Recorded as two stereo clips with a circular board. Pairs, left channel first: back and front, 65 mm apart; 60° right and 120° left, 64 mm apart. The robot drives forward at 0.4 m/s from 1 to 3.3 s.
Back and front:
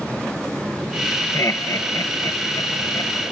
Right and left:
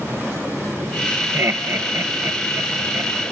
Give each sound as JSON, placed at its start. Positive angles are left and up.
{"t": 1.3, "sound": "laughter", "azimuth_deg": 155, "distance_m": 1.0}